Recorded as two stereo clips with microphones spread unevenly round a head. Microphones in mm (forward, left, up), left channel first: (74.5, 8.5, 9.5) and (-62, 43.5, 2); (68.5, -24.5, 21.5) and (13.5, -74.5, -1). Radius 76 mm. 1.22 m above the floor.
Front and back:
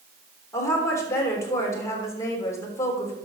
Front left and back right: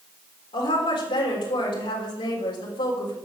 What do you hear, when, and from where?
0.5 s a woman speaking: 55° left, 3.5 m